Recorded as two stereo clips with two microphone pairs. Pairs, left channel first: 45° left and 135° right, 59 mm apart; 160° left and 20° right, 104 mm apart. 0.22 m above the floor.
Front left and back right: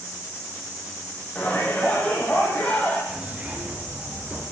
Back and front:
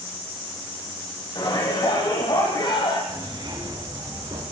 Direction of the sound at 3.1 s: 65° right.